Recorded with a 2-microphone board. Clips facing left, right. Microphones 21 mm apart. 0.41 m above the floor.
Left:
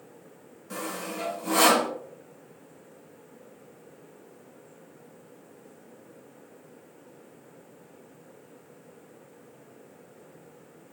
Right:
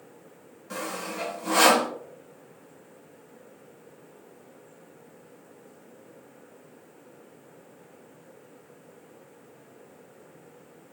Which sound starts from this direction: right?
Sawing, at 0.7 s.